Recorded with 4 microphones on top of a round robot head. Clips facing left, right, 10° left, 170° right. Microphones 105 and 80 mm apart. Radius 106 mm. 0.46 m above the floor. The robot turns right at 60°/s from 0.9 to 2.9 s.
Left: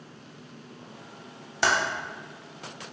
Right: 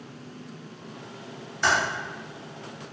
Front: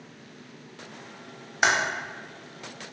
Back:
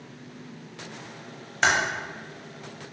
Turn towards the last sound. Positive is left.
turn(degrees=165)